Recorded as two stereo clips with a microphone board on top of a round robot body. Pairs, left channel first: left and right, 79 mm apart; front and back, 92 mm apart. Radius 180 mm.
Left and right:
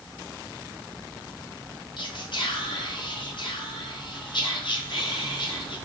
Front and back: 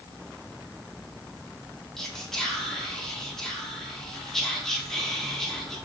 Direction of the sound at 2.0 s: 85° left.